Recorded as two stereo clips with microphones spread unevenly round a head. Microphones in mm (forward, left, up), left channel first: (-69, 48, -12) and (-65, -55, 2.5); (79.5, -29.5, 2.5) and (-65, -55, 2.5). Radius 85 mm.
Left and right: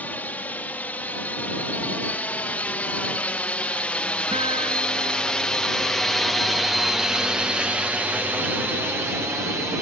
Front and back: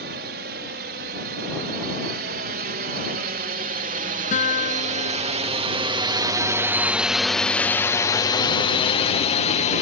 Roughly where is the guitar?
Ahead right.